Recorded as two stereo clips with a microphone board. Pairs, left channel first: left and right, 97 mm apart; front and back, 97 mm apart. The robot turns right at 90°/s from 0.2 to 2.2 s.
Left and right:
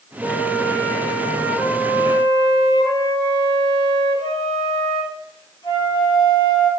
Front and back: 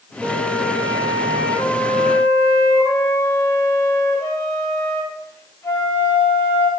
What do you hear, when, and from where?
0.2 s a flute: 125° right, 1.7 m; by 6.7 s 55° left, 1.7 m